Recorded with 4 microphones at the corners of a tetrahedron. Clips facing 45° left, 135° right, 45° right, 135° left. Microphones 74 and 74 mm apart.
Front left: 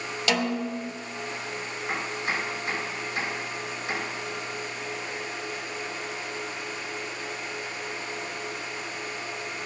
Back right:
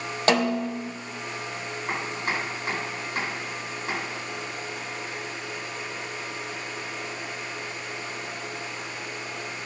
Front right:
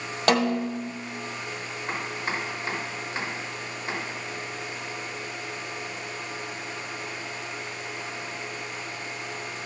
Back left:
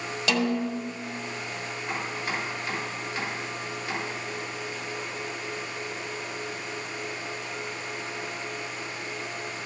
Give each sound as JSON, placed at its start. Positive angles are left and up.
{"t": 0.3, "sound": "a snare drum", "azimuth_deg": -85, "distance_m": 0.8}
{"t": 1.9, "sound": "chopping", "azimuth_deg": -105, "distance_m": 3.5}